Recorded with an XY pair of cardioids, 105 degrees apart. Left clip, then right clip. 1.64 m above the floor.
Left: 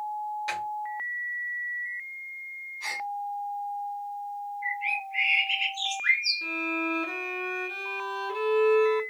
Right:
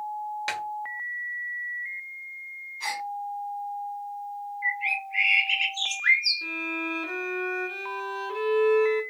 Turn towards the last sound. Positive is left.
turn(degrees=0)